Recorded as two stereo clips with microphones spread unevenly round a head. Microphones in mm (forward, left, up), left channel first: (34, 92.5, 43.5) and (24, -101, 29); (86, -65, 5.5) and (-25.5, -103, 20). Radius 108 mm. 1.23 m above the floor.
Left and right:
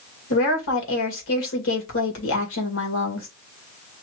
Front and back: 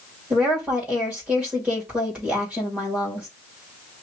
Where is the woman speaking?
115° left, 2 m.